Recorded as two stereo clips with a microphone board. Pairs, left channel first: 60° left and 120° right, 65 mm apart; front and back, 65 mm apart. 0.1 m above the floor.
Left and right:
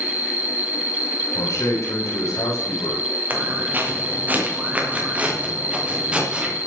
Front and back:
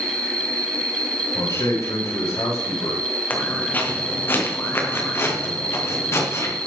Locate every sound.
0.0 s an insect: 175° left, 0.8 m
1.3 s a man speaking: 20° left, 9 m
3.3 s footsteps: 65° right, 4 m; by 6.5 s 45° right, 5.5 m